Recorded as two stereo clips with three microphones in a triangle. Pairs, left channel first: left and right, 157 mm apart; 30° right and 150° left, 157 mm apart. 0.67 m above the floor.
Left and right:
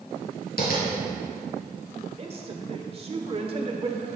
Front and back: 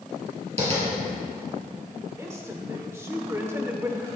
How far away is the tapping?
About 4.5 m.